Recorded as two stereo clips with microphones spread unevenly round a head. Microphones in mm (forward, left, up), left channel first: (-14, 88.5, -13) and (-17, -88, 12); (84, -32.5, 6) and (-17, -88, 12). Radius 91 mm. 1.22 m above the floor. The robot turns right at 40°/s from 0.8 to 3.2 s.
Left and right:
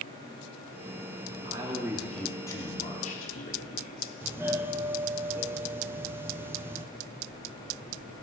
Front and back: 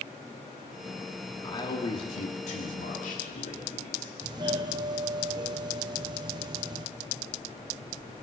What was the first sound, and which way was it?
A man speaking, 25° right.